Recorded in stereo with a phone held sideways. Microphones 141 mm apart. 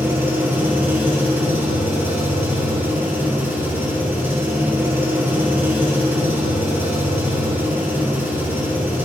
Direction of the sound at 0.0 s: 15° right (ahead or behind).